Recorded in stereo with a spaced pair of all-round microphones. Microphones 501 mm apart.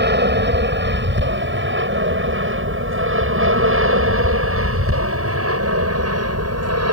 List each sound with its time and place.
0.0 s an aircraft: 20° right (ahead or behind); by 6.9 s 30° right (ahead or behind)